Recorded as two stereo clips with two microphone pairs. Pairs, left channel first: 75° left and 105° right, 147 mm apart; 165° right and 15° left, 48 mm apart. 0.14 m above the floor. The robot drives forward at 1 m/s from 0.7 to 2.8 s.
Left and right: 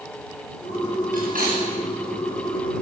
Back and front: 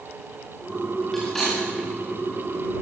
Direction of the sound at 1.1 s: 85° right.